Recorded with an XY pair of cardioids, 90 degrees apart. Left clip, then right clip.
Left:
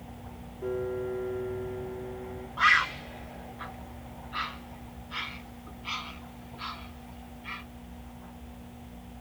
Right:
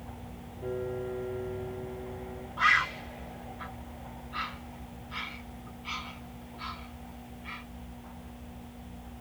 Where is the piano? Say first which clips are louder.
Left 3 dB; 35° left, 1.8 m.